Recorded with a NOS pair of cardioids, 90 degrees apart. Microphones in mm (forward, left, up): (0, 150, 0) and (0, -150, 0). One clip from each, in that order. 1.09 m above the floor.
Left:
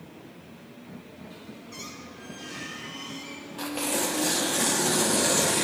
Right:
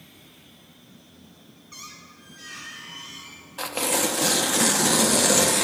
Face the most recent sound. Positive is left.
turn(degrees=-35)